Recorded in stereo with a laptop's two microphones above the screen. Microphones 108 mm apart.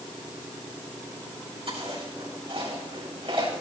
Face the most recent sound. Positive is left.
turn(degrees=-60)  # may be behind; listen again after turning